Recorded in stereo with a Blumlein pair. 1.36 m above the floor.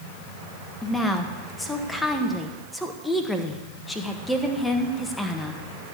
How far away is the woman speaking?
About 1.6 m.